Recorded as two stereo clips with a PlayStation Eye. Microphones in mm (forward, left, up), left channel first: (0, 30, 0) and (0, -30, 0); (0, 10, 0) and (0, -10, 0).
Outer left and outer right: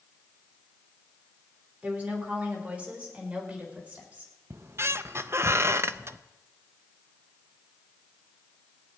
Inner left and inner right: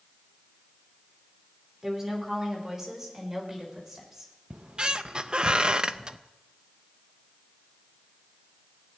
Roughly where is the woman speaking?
Right.